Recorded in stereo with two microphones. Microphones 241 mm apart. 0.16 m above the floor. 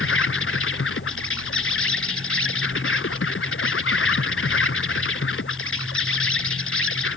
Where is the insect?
60° left (ahead or behind).